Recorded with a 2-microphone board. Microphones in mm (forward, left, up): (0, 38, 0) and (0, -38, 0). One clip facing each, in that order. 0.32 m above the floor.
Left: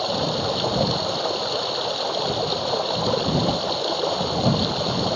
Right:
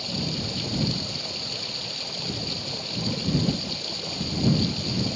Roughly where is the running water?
Left.